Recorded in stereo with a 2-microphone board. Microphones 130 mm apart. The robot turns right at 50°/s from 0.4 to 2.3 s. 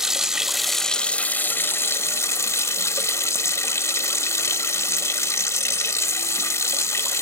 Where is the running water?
5° right (ahead or behind), 1.2 m; by 7.2 s 20° left (ahead or behind), 1.2 m.